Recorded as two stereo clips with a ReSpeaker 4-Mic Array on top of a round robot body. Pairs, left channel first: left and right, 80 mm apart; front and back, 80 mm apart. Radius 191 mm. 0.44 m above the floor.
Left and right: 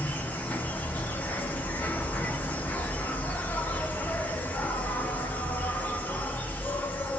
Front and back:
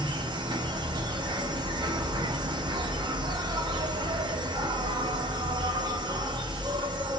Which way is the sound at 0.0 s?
160° left.